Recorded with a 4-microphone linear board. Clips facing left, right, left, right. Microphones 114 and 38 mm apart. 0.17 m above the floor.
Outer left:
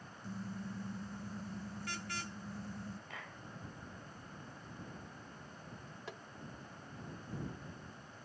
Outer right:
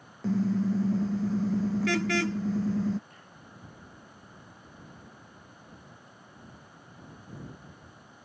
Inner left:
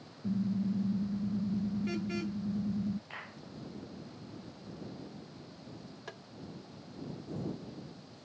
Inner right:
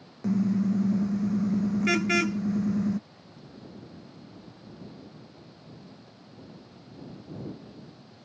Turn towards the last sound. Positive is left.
turn(degrees=70)  # may be behind; listen again after turning